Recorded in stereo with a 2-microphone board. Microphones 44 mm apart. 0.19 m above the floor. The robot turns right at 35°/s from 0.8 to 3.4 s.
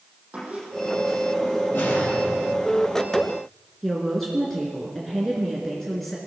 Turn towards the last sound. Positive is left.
turn(degrees=5)  # may be behind; listen again after turning